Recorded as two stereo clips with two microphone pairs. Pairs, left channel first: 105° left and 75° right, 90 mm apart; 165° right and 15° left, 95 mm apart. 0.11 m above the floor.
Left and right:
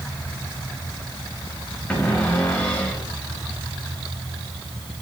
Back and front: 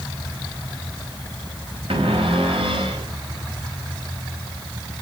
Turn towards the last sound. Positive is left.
turn(degrees=30)